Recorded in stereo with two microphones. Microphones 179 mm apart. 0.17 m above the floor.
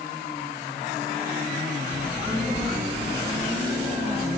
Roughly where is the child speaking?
Right.